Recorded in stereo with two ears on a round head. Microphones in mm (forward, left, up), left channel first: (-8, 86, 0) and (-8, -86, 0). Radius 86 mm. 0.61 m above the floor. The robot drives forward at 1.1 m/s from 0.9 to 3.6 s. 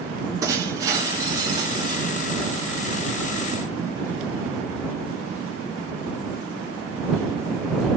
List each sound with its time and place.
0.4 s breaking glass: 20° right (ahead or behind), 5 m; by 2.1 s 25° right (ahead or behind), 4 m